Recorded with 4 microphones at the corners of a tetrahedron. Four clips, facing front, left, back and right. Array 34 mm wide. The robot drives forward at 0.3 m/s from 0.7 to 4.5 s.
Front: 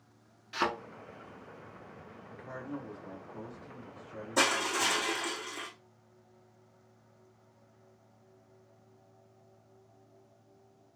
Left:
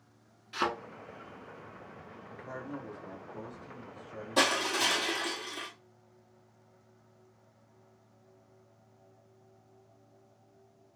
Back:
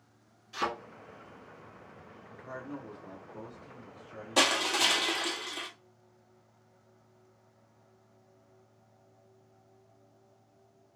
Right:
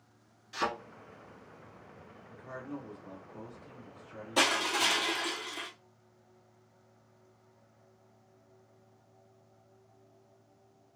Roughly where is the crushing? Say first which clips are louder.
Even, back 2 dB; behind.